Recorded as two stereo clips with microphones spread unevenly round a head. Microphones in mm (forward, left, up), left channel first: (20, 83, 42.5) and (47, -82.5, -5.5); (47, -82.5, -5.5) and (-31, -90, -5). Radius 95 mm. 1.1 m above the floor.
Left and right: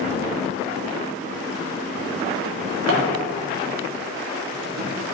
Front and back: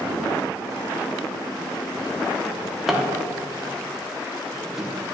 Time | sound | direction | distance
2.5 | a drawer | 90° right | 1.3 m